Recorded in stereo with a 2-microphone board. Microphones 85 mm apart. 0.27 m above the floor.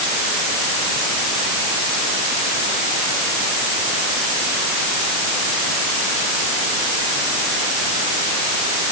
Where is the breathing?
No breathing in this recording.